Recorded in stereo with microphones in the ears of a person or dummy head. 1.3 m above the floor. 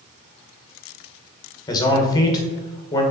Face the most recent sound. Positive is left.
turn(degrees=20)  # may be behind; listen again after turning